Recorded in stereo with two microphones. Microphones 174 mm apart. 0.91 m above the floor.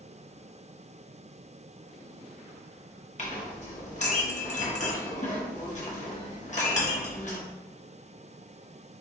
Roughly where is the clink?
Left.